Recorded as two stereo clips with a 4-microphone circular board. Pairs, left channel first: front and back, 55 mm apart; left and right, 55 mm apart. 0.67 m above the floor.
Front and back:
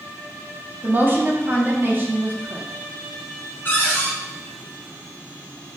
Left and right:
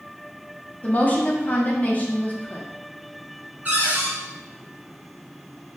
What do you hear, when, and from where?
0.8 s a woman speaking: 140° left, 0.7 m
3.6 s a cupboard door: 40° right, 1.1 m